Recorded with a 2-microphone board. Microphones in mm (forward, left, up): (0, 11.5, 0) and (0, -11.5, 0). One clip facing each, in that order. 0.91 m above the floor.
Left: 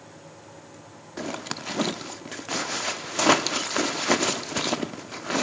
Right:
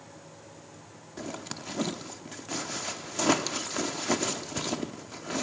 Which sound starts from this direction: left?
A zipper, at 1.2 s.